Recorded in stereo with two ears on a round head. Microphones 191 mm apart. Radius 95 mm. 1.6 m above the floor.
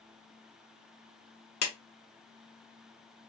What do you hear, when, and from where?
1.6 s a clap: 70° left (ahead or behind), 1.2 m